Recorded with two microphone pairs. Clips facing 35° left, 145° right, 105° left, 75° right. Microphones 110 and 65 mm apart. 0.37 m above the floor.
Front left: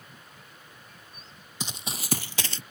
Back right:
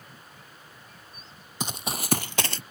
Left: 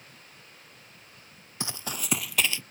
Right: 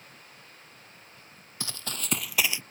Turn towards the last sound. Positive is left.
turn(degrees=-135)